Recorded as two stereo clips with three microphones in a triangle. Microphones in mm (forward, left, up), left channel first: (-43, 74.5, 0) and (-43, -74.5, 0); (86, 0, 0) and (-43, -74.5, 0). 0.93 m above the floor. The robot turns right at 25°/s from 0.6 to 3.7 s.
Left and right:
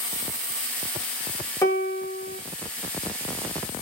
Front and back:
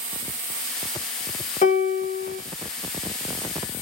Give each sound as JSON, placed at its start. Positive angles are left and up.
{"t": 1.6, "sound": "a piano", "azimuth_deg": 25, "distance_m": 0.6}